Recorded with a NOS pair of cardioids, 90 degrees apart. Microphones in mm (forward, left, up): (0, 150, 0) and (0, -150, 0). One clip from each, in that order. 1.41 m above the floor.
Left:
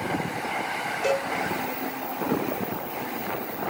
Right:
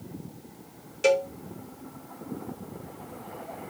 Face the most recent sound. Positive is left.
turn(degrees=-50)